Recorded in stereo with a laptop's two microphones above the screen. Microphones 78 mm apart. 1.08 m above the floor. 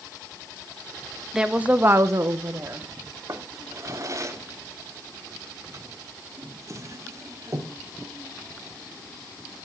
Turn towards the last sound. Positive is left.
turn(degrees=-45)  # may be behind; listen again after turning